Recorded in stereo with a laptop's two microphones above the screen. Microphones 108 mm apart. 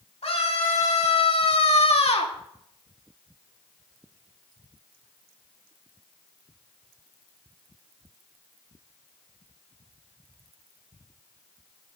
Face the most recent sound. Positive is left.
turn(degrees=65)  # may be behind; listen again after turning